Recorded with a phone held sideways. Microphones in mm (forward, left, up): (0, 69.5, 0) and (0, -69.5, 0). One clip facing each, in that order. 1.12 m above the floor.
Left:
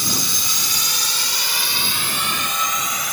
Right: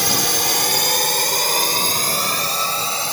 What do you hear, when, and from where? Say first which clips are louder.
0.0 s a drone: right 6 dB; 80° right; by 3.1 s 30° right (ahead or behind)